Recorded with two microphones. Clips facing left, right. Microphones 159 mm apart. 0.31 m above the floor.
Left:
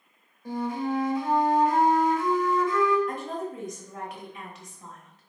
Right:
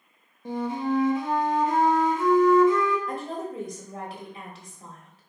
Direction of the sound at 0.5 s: 20° right (ahead or behind).